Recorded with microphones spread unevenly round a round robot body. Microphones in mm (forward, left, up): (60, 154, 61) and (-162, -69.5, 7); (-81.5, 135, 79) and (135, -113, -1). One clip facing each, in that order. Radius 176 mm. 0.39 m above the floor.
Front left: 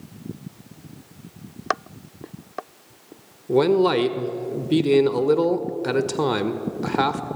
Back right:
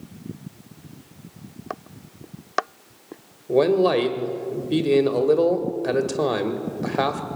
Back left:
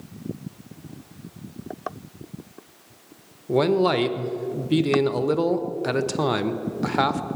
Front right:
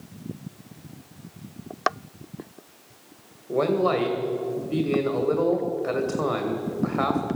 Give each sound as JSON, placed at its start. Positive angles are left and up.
{"t": 3.5, "sound": "a man speaking", "azimuth_deg": 120, "distance_m": 1.7}